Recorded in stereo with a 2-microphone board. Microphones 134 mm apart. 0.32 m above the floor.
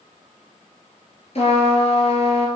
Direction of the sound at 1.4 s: 50° left (ahead or behind).